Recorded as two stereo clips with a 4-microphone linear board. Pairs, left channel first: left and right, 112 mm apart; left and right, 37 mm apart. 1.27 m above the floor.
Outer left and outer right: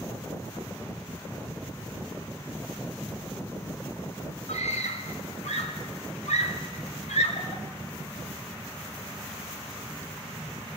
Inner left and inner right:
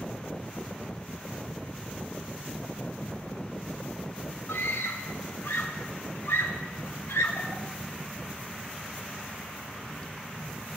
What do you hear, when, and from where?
4.5 s a scream: 80° left, 6 m